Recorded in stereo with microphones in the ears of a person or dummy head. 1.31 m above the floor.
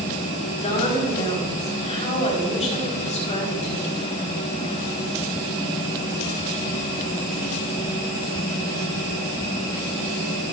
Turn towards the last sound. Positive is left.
turn(degrees=35)  # may be behind; listen again after turning